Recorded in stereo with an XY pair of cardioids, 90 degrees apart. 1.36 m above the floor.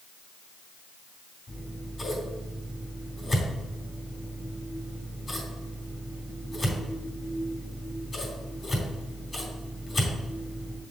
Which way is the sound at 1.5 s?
30° left.